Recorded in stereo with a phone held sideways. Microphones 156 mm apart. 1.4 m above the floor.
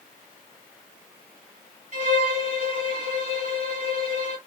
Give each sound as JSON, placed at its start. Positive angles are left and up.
{"t": 1.9, "sound": "a violin", "side_deg": -50, "distance_m": 1.6}